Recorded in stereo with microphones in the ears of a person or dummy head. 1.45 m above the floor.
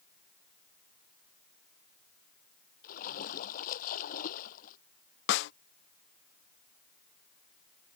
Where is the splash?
50° left (ahead or behind).